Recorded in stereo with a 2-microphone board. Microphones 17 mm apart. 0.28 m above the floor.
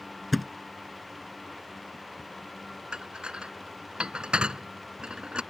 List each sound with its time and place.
0.3 s a thud: centre (ahead or behind)
2.9 s dishes clattering: 70° right (ahead or behind)